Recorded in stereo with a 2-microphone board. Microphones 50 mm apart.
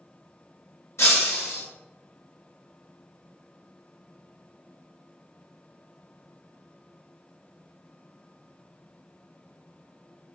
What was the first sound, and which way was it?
Breaking glass, 80° left.